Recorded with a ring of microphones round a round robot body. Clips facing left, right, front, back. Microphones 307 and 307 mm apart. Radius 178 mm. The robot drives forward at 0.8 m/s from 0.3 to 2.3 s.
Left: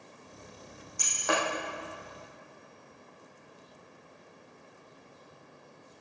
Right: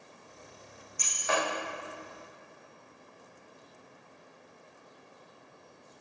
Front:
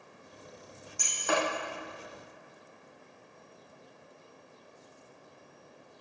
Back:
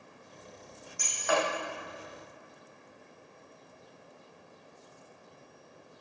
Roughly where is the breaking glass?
Ahead left.